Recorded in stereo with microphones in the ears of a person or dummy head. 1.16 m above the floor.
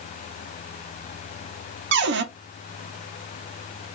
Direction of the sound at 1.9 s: 55° right (ahead or behind).